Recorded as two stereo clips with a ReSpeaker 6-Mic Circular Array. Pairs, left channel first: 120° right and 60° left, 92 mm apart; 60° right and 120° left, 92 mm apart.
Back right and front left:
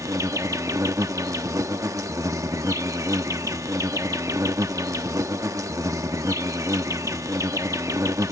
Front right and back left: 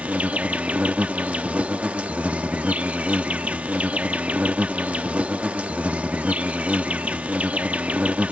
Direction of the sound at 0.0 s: 55° left.